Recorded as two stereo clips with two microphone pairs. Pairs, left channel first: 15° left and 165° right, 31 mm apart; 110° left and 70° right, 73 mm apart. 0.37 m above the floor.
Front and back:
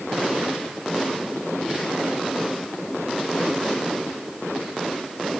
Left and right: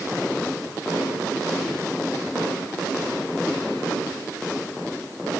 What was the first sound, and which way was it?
Only background noise.